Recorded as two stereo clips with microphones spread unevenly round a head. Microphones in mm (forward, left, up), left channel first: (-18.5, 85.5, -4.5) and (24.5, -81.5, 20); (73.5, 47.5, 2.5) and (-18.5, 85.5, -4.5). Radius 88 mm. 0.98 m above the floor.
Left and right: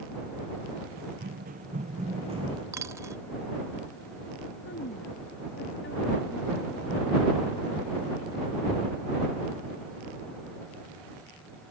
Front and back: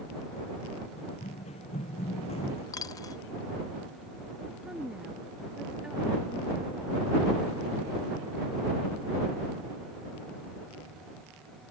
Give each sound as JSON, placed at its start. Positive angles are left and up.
{"t": 1.0, "sound": "running footsteps", "azimuth_deg": -45}
{"t": 2.7, "sound": "a dropped coin", "azimuth_deg": -20}
{"t": 4.6, "sound": "a woman speaking", "azimuth_deg": 75}